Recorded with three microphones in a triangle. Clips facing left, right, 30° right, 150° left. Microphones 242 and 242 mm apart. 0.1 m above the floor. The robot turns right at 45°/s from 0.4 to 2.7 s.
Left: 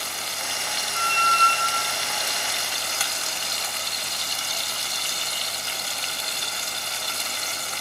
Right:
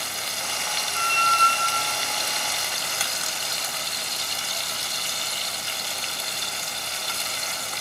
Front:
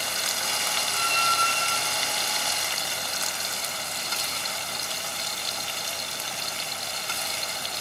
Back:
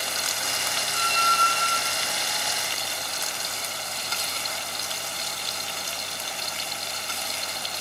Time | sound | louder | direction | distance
0.9 | a squeak | left 1 dB, back 1 dB | 5° left | 1.6 m